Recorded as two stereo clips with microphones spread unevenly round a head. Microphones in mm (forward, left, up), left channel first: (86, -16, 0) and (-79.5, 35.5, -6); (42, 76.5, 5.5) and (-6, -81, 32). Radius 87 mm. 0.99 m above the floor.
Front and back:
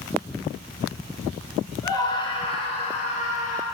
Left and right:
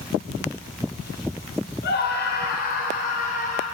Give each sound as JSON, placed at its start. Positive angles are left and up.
{"t": 1.8, "sound": "a scream", "azimuth_deg": 55, "distance_m": 4.0}